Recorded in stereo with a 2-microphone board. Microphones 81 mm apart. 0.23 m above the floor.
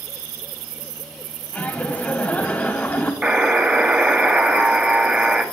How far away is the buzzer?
About 0.7 m.